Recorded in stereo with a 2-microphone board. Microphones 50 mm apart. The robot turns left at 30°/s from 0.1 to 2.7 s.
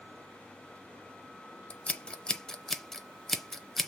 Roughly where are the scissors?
Left.